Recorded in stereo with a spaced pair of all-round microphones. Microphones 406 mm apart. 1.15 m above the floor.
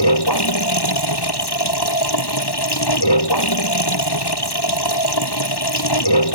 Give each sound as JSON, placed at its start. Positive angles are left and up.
{"t": 0.0, "sound": "running water", "side_deg": 75}